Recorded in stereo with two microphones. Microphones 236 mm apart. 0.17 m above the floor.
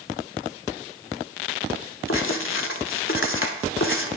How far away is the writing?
About 0.7 m.